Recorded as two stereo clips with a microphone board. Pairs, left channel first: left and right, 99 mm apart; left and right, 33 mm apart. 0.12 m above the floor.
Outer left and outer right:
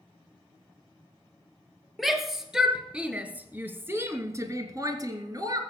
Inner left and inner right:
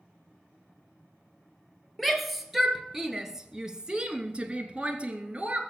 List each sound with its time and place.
2.0 s a shout: centre (ahead or behind), 2 m; by 5.6 s 40° right (ahead or behind), 1.7 m